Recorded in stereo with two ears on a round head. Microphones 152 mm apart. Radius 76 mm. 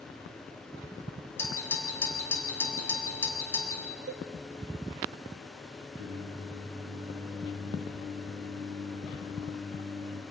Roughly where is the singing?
Right.